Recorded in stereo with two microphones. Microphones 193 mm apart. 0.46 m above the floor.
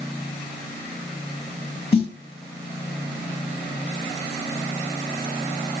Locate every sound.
1.9 s a snare drum: 30° left (ahead or behind), 1.2 m